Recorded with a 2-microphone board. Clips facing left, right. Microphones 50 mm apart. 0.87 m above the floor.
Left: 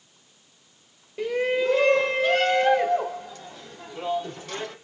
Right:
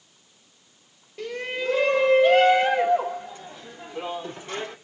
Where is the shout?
15° left (ahead or behind), 1.0 m; by 4.8 s 25° right (ahead or behind), 3 m.